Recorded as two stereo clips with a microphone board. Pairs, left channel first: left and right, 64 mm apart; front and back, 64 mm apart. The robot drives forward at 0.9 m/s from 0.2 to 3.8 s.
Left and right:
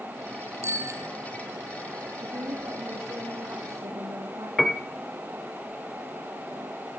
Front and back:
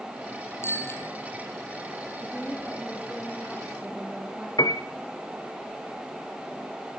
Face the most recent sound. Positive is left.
turn(degrees=0)